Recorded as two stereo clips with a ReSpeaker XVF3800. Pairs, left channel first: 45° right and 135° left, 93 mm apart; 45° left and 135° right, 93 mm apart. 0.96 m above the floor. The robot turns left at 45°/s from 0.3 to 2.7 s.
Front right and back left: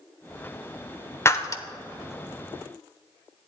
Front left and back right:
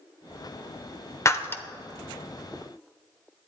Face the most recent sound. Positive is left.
turn(degrees=-65)